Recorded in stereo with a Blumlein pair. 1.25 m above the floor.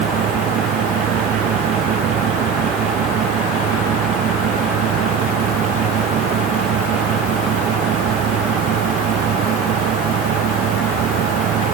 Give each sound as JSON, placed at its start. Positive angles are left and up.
{"t": 0.0, "sound": "a fan", "azimuth_deg": -30}